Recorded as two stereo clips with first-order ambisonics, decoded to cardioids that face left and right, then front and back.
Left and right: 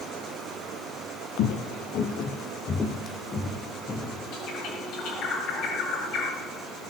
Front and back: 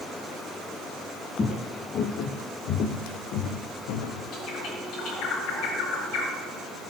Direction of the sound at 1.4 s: 65° left.